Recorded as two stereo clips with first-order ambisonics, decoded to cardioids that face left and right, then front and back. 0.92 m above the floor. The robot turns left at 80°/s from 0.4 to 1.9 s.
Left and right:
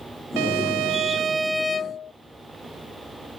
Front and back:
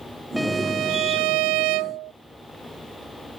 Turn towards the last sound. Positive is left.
turn(degrees=150)